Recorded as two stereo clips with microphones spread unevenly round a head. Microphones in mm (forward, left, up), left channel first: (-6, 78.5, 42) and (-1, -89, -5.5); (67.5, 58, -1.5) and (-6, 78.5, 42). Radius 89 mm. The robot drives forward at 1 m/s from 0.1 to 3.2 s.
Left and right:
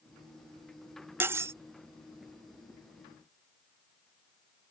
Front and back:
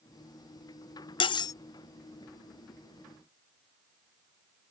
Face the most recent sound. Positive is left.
turn(degrees=180)